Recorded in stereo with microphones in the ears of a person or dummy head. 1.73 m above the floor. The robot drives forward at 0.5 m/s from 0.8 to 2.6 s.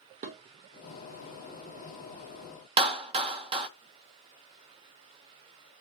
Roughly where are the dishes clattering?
Right.